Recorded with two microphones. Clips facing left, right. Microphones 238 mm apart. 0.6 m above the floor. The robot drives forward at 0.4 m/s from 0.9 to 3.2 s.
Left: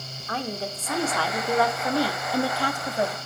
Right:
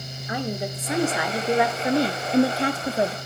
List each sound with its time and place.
0.3 s a woman speaking: 15° right (ahead or behind), 1.3 m; by 3.2 s 30° right (ahead or behind), 0.7 m